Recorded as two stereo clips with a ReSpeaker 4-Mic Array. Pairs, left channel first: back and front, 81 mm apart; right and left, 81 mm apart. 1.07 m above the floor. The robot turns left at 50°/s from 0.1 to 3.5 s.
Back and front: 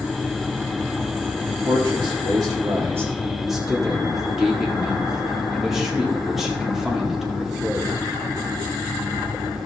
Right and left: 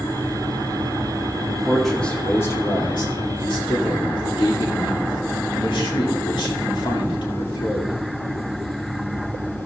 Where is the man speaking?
15° left, 2 m; by 7.9 s 85° right, 2 m.